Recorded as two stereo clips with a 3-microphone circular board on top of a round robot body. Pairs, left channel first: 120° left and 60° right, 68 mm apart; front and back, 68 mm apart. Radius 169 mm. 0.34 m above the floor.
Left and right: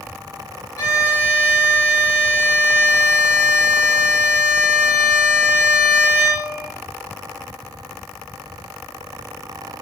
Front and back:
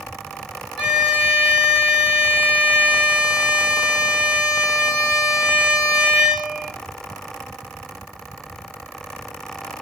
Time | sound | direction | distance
0.8 | a violin | 100° left | 0.9 m